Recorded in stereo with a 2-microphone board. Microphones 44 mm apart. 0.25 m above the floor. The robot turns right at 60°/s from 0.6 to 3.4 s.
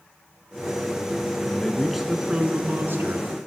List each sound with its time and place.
1.5 s a man speaking: 155° left, 2.5 m; by 3.3 s 95° right, 2.5 m